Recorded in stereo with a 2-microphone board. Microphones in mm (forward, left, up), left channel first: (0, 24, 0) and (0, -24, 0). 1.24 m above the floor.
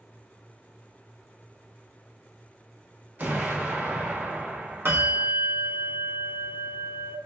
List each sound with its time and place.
3.2 s an explosion: 40° right (ahead or behind), 0.9 m
4.8 s a bell: 55° right (ahead or behind), 0.9 m